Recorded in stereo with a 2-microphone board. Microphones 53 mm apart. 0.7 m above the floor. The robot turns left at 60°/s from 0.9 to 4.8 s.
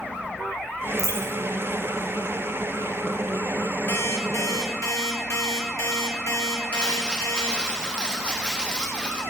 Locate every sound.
1.0 s a dropped coin: 85° left, 1.4 m; by 1.3 s 65° left (ahead or behind), 1.4 m
3.9 s an alarm clock: 135° left, 1.8 m; by 7.7 s 80° left, 1.8 m
6.7 s crumpling: 20° left (ahead or behind), 1.1 m